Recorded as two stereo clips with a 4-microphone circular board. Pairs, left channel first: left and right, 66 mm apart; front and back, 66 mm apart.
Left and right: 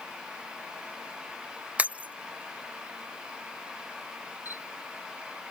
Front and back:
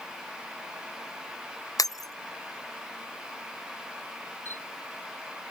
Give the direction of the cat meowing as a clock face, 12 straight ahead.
I don't hear a cat meowing.